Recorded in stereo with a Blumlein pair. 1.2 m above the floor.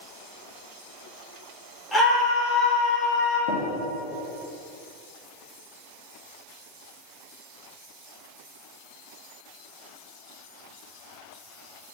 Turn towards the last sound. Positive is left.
turn(degrees=55)